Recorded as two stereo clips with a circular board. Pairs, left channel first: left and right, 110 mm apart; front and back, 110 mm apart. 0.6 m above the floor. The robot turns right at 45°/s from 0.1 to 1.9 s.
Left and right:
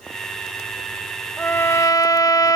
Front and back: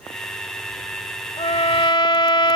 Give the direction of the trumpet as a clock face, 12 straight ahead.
12 o'clock.